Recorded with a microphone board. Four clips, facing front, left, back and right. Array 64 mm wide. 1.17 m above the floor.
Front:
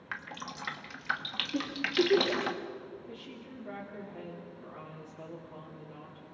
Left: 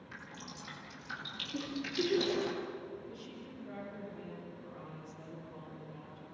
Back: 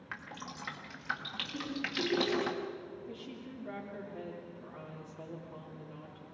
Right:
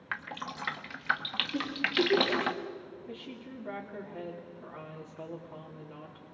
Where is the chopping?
No chopping in this recording.